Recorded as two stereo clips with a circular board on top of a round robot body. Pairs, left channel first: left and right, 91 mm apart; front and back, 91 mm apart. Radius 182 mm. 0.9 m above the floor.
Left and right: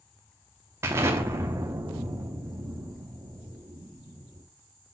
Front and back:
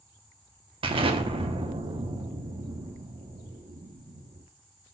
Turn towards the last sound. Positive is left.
turn(degrees=-155)